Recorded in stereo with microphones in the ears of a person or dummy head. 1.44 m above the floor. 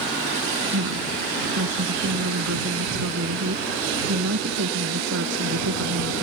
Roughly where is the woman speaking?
Right.